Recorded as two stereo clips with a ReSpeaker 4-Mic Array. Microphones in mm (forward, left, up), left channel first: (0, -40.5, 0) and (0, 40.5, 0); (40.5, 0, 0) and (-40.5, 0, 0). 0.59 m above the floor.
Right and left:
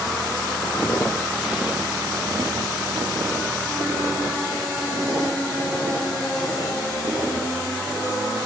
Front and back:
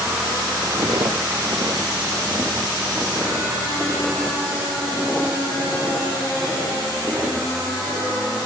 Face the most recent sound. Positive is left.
turn(degrees=85)